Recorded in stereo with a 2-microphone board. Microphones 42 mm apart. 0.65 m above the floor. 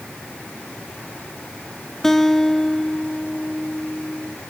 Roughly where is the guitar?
Centre.